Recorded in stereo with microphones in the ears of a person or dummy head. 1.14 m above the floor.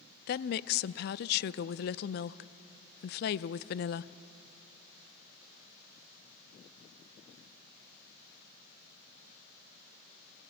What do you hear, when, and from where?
0.3 s a woman speaking: 55° left (ahead or behind), 0.5 m